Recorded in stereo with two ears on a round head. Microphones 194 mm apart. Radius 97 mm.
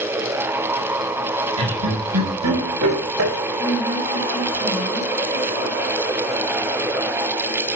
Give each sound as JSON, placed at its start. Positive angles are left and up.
{"t": 1.6, "sound": "laughter", "side_deg": -80, "distance_m": 5.5}
{"t": 3.6, "sound": "a woman speaking", "side_deg": -20, "distance_m": 8.5}